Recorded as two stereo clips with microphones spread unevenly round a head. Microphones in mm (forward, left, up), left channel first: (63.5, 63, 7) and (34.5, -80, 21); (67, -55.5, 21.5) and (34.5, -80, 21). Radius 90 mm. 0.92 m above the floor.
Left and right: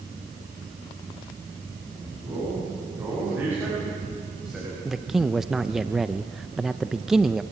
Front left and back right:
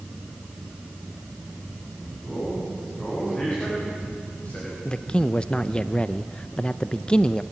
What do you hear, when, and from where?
2.2 s a man speaking: 35° right, 9 m; by 4.8 s 10° right, 6 m
4.8 s a man speaking: 5° right, 0.6 m